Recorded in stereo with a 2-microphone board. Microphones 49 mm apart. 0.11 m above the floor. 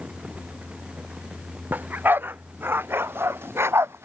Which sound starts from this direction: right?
A dog barking, at 1.7 s.